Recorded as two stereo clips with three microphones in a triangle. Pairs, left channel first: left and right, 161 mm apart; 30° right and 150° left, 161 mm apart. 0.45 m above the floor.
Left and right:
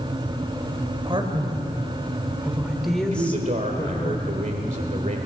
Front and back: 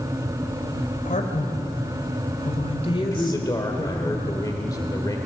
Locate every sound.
1.1 s a man speaking: 40° right, 2.5 m; by 4.1 s 40° left, 1.9 m
3.1 s a man speaking: 90° right, 1.6 m